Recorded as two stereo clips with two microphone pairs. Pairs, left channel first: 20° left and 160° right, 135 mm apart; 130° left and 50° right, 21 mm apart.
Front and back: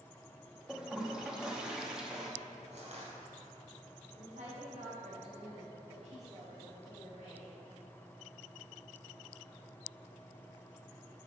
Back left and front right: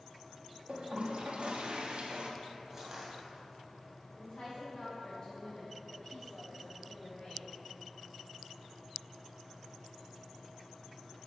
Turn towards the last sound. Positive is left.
turn(degrees=175)